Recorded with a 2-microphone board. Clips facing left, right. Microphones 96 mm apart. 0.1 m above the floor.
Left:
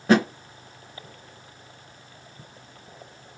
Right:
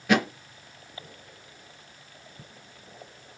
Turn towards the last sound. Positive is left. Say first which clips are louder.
# left 4 dB
turn(degrees=35)  # may be behind; listen again after turning